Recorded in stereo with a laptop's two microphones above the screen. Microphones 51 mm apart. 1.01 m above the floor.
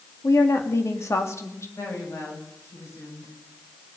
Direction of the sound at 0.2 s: 75° left (ahead or behind).